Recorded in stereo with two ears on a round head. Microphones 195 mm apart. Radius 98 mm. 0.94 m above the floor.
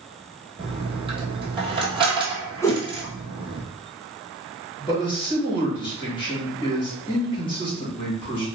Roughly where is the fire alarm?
I don't hear a fire alarm.